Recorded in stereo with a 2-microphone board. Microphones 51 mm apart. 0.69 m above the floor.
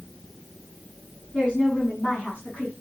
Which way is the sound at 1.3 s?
20° left (ahead or behind).